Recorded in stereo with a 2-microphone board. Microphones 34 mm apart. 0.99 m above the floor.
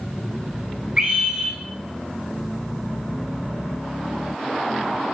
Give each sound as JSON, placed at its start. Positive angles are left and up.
{"t": 1.0, "sound": "a scream", "side_deg": -10, "distance_m": 5.0}